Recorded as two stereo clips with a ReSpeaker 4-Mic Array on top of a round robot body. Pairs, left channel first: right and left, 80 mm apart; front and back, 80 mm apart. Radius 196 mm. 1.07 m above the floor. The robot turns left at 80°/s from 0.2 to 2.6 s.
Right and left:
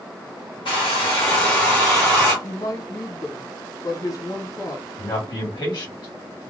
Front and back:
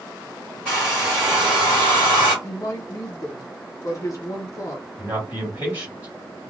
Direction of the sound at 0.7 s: 80° right.